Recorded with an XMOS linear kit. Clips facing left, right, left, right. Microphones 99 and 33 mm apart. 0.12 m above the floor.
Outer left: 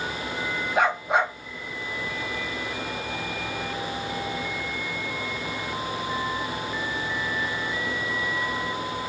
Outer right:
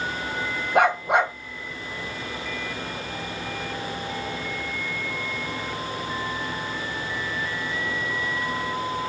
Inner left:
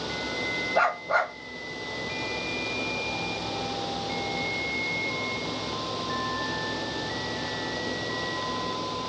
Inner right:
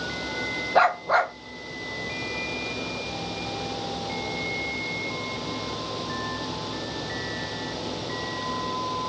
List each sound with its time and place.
0.8 s a dog barking: 60° right (ahead or behind), 2 m